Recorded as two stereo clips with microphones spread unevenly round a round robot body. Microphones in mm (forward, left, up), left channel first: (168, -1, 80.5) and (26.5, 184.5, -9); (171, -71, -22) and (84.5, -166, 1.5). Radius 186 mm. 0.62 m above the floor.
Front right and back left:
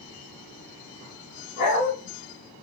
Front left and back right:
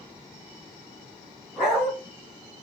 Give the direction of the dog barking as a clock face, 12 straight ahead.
1 o'clock.